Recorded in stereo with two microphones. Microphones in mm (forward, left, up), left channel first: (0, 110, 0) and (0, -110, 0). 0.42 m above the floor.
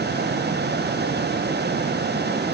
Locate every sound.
Only background noise.